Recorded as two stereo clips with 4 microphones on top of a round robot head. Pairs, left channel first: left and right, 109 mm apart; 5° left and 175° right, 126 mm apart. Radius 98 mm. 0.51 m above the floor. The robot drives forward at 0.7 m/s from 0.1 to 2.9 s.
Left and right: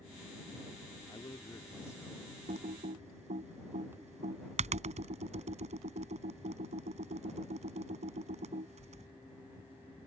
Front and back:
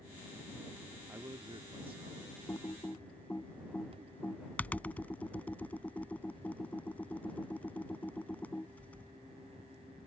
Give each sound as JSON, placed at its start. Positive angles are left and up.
{"t": 1.1, "sound": "a man speaking", "azimuth_deg": 125}
{"t": 2.5, "sound": "typing on a keyboard", "azimuth_deg": -70}